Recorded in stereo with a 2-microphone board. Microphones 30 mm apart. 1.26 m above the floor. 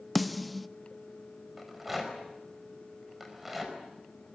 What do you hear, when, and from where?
0.1 s a snare drum: centre (ahead or behind), 0.6 m
1.6 s a rattle: 10° right (ahead or behind), 4.5 m